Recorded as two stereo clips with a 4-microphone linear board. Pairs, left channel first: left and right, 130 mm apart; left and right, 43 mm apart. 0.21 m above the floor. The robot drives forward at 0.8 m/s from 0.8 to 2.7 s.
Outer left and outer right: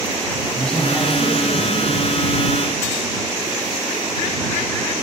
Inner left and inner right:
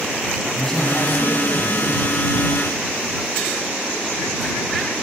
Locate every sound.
0.6 s a man speaking: 5° left (ahead or behind), 1.4 m